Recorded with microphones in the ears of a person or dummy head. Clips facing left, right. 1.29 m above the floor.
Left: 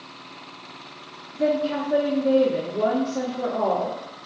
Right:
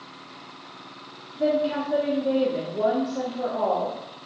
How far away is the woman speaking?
About 1.1 m.